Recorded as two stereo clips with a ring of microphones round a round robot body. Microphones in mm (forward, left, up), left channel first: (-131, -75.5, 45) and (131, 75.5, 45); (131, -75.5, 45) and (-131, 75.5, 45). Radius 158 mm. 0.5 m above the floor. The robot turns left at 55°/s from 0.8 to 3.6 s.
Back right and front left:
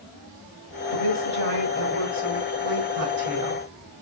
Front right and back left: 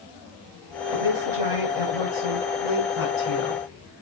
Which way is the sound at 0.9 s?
175° right.